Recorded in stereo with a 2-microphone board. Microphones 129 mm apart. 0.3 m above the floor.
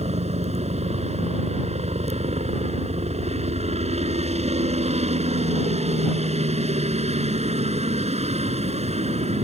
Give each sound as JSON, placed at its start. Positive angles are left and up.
{"t": 0.0, "sound": "a helicopter", "side_deg": -55}